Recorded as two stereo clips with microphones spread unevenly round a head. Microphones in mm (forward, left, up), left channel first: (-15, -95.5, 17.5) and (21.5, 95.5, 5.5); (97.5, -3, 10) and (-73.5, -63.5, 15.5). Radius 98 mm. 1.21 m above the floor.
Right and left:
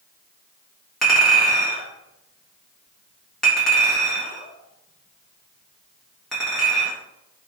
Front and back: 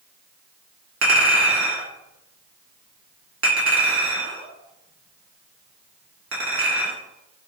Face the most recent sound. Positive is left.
turn(degrees=170)